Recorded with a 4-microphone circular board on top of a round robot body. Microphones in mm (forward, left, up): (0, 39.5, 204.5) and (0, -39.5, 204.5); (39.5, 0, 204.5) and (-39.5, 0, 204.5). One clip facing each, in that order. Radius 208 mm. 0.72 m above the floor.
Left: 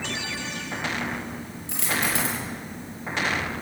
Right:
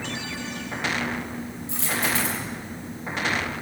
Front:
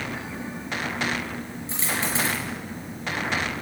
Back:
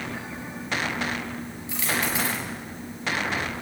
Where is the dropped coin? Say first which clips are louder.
Even, back 1 dB; 60° left, 6 m.